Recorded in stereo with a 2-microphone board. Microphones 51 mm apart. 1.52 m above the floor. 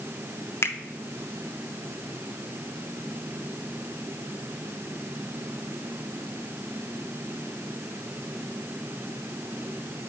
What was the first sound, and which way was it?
A finger snap, 55° left (ahead or behind).